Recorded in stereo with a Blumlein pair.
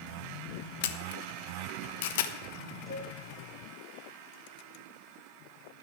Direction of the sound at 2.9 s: 5° left.